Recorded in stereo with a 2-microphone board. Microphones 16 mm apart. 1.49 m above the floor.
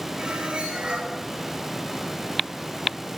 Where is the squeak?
85° right, 7 m.